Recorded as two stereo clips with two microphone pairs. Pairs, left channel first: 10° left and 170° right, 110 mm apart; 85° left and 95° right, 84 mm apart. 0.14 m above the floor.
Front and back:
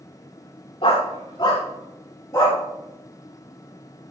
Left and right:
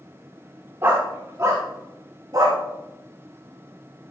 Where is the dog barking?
35° right, 5 m; by 2.6 s 55° right, 6.5 m.